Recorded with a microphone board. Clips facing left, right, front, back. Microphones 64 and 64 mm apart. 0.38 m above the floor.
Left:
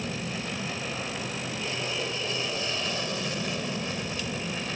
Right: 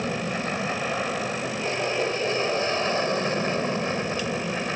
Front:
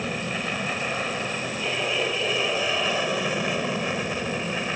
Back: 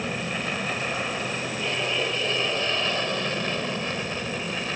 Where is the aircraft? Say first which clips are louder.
Right 6 dB, even; 85° right; by 4.8 s 70° right.